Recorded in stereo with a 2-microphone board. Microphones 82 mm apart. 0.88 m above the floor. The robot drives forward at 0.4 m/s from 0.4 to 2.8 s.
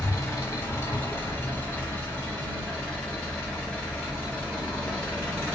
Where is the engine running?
30° left (ahead or behind), 0.8 m; by 5.5 s 15° left (ahead or behind), 1.6 m.